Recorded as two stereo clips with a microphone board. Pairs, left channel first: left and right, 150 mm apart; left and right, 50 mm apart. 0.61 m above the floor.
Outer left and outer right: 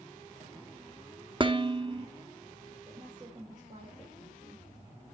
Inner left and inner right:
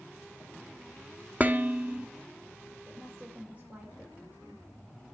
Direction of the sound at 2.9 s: 35° right (ahead or behind).